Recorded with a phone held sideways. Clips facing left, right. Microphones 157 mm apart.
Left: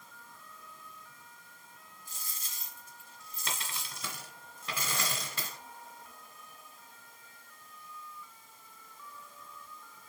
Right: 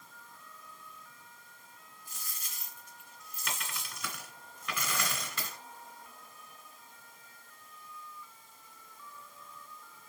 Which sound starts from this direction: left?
A dropped coin, at 2.1 s.